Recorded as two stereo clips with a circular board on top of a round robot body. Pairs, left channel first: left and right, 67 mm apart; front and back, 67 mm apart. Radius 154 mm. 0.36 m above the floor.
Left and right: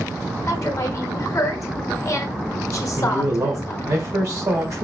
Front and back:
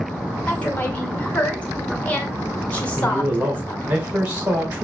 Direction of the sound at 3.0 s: 120° right.